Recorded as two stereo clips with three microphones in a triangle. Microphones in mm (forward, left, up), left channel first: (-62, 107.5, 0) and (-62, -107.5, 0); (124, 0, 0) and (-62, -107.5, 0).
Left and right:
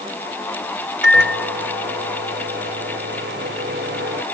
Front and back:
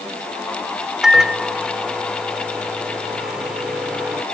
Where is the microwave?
60° right.